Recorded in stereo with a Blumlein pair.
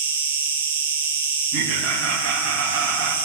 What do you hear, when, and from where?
0.0 s an insect: 60° right, 0.8 m
1.5 s laughter: 40° right, 1.5 m